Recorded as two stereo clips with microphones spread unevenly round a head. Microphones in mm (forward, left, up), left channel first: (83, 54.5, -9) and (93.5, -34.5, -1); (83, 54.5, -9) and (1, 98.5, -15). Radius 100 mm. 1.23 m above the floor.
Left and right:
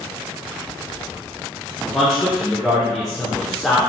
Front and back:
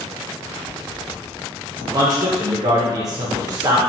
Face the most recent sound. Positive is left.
turn(degrees=180)